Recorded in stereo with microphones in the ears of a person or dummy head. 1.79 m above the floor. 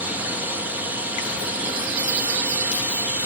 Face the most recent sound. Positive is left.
turn(degrees=-5)  # may be behind; listen again after turning